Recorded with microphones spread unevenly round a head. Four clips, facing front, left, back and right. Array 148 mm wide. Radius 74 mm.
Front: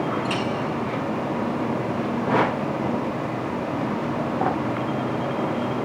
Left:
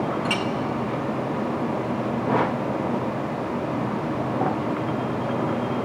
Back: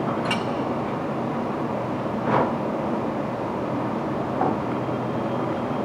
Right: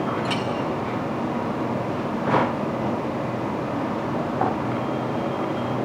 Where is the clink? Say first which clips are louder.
Even, even; 175° left, 1.3 m.